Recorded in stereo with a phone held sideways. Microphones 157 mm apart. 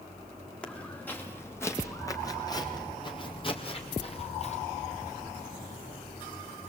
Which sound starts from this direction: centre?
Footsteps, at 0.6 s.